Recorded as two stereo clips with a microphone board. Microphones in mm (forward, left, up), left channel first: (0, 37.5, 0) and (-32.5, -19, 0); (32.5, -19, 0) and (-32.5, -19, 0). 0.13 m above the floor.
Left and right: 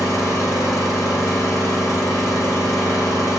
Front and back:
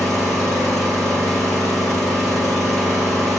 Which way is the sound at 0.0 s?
85° left.